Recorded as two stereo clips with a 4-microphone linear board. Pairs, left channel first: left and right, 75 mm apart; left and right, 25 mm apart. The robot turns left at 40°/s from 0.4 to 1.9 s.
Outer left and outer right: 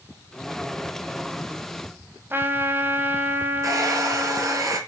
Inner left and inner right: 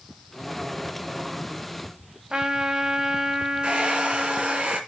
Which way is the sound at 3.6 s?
45° right (ahead or behind).